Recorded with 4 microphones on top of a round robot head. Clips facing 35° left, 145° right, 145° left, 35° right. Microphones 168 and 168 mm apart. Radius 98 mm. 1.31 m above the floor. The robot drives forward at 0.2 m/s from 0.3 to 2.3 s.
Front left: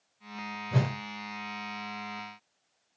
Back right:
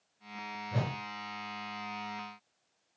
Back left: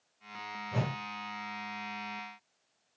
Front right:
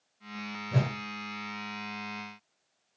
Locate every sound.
0.7 s a whoosh: 5° left, 0.6 m; by 0.9 s 10° left, 0.5 m